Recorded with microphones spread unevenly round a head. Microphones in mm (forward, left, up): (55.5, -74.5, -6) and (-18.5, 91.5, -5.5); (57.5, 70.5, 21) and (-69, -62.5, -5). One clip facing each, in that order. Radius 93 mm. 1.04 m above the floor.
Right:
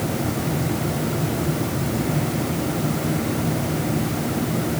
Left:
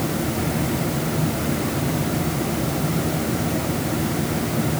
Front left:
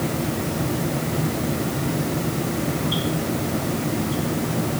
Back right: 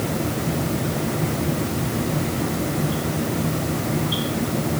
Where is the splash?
No splash in this recording.